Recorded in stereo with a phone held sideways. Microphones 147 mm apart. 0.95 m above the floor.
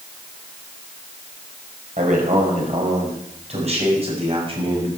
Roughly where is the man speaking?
Right.